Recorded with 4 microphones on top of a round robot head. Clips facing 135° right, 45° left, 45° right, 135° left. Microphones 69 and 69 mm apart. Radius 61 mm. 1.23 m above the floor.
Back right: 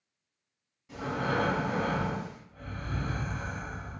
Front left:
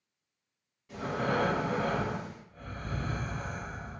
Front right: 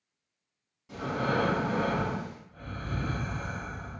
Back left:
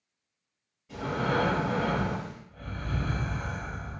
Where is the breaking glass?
No breaking glass in this recording.